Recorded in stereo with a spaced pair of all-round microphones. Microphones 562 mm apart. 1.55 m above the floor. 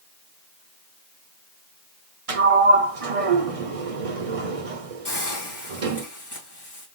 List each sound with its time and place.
2.3 s a sliding door: 75° right (ahead or behind), 0.8 m
5.0 s a hiss: 45° left (ahead or behind), 2.0 m